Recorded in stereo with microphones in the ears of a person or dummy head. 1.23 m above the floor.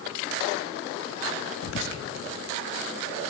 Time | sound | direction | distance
1.6 | whispering | 70° left (ahead or behind) | 1.8 m